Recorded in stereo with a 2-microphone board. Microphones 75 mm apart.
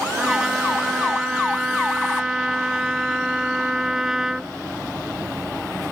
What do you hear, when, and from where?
0.2 s a trumpet: 5° right (ahead or behind)